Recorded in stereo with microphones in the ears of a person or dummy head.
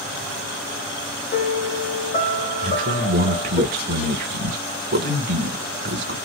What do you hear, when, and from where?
1.3 s a piano: 35° left (ahead or behind), 1.5 m
2.6 s a man speaking: 45° right (ahead or behind), 0.6 m